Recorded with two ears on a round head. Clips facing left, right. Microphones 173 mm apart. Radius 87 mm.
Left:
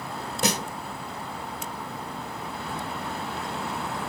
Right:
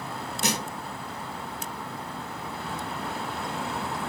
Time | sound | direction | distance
0.4 | a snare drum | 55° left (ahead or behind) | 1.5 m